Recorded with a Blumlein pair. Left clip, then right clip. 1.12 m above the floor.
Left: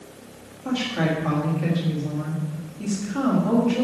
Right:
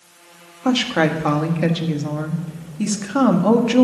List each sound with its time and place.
0.7 s a woman speaking: 30° right, 1.7 m